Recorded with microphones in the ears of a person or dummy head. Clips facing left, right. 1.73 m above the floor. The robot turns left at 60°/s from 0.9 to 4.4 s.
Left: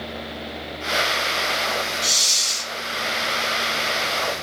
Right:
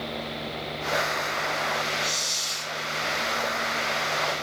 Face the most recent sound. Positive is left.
turn(degrees=-50)